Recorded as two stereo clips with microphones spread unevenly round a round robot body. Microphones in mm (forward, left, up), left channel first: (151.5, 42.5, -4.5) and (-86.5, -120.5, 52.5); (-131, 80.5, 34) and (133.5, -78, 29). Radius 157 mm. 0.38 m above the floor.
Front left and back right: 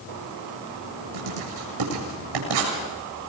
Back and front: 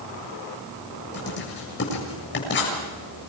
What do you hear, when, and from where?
1.1 s writing: 155° right, 8 m